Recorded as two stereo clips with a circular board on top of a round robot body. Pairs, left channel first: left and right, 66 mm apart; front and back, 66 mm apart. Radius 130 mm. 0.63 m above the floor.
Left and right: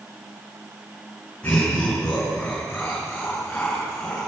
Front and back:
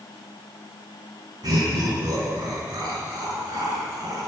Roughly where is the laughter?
Behind.